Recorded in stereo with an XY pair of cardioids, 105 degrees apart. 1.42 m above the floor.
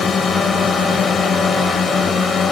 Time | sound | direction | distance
0.0 | a drone | 50° left | ?